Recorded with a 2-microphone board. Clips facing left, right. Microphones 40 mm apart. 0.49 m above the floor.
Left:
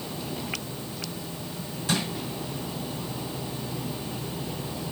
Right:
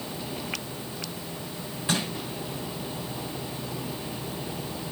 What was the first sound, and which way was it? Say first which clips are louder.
Crushing: even; 20° right (ahead or behind).